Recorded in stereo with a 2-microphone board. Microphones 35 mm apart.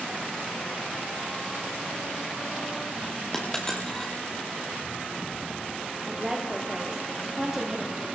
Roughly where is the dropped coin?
Centre.